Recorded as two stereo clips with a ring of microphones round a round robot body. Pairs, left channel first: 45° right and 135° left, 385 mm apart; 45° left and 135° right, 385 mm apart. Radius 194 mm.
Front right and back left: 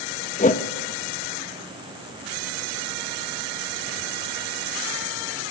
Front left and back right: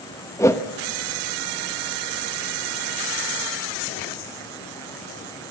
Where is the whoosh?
25° right, 1.1 m.